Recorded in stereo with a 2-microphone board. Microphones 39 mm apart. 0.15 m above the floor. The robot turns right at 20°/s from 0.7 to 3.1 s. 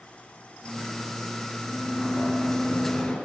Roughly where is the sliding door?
Centre.